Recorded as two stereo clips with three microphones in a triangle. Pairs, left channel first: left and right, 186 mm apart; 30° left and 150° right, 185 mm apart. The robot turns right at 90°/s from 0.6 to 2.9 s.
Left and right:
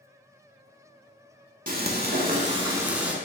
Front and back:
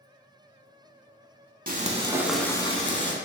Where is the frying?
120° right, 0.6 m; by 3.1 s 10° right, 0.6 m.